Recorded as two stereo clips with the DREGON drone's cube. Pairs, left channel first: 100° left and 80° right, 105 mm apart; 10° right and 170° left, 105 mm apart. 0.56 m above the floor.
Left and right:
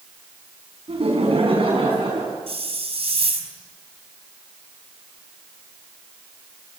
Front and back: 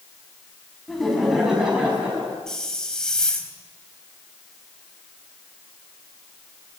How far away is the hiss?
About 4.5 m.